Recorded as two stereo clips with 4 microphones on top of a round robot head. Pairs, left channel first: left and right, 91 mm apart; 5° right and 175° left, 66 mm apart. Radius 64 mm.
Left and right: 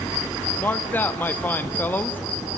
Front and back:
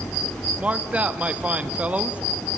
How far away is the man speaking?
About 0.5 m.